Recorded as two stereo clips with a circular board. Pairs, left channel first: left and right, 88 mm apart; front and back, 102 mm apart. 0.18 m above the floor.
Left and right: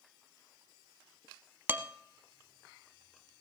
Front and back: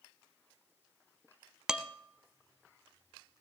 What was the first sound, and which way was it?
Dishes clattering, 110° right.